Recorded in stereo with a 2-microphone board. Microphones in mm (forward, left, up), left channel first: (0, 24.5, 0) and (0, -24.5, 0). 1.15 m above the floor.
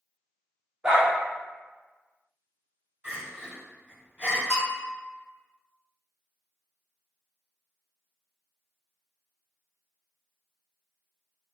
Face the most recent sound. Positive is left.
turn(degrees=10)  # may be behind; listen again after turning